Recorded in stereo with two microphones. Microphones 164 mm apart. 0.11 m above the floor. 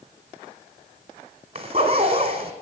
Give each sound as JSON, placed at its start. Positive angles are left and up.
{"t": 1.6, "sound": "a zipper", "side_deg": -40, "distance_m": 1.6}